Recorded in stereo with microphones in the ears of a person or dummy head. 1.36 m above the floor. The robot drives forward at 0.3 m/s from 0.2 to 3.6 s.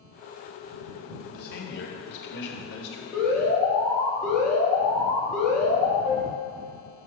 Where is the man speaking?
50° left (ahead or behind), 2.0 m; by 3.0 s 65° left (ahead or behind), 1.7 m.